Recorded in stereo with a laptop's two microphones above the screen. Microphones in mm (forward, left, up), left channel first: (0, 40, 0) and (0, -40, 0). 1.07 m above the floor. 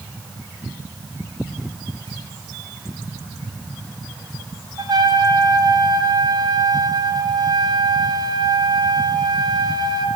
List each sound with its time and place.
4.8 s a trumpet: 60° right (ahead or behind), 0.6 m